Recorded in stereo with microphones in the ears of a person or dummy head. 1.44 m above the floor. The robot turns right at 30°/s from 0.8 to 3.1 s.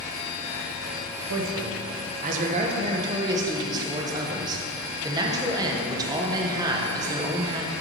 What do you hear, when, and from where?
1.3 s a man speaking: 75° right, 1.1 m; by 7.7 s 20° right, 1.1 m